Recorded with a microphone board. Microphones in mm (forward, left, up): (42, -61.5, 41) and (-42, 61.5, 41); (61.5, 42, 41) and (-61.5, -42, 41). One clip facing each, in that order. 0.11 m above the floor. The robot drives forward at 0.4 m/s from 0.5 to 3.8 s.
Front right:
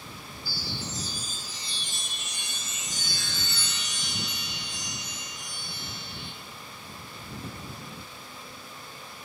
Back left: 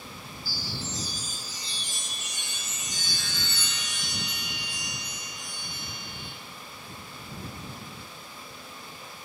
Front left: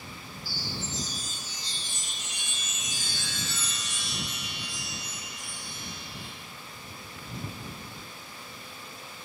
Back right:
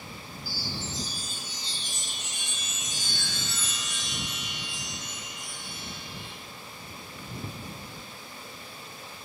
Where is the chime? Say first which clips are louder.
Even, even; 175° left, 1.2 m.